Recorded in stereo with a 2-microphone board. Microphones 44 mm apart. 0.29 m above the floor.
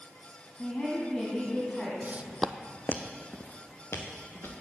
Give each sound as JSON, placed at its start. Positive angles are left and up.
{"t": 0.6, "sound": "a woman speaking", "side_deg": 20, "distance_m": 2.0}
{"t": 2.0, "sound": "footsteps", "side_deg": -45, "distance_m": 0.6}